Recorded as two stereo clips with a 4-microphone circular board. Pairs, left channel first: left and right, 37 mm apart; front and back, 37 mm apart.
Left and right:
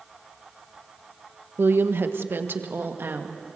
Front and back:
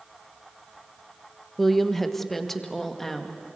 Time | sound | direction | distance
1.6 | a woman speaking | 85° right | 1.2 m